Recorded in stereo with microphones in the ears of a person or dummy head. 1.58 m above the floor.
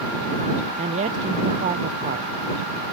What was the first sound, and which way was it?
A man speaking, 35° right (ahead or behind).